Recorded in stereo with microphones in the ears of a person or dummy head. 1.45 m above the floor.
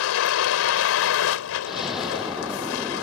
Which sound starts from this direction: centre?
An explosion, at 1.7 s.